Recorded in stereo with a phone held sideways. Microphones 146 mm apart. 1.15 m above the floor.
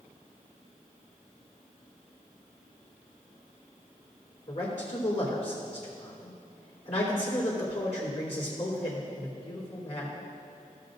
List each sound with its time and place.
4.5 s a man speaking: 50° left (ahead or behind), 3.5 m